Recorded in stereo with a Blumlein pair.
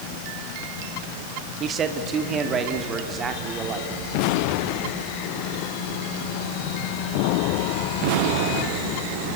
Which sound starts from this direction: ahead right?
A man speaking, at 1.6 s.